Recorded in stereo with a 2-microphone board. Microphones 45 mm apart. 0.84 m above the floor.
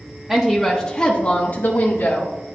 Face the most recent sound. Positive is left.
turn(degrees=60)  # may be behind; listen again after turning